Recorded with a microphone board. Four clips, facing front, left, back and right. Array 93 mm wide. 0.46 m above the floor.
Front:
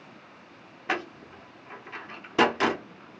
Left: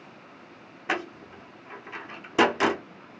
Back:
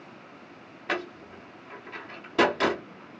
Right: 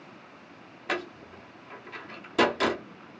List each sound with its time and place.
0.9 s a door slam: 65° left, 0.8 m